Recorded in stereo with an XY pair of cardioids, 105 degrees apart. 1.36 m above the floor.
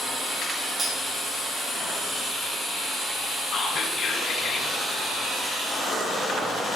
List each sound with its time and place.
0.8 s cutlery clinking: 45° right, 1.5 m
3.5 s whispering: 60° left, 3 m